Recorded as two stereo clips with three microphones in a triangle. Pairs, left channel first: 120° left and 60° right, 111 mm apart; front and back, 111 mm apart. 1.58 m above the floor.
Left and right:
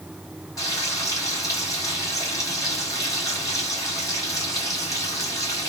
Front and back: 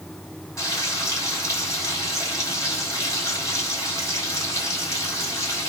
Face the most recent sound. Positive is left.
turn(degrees=60)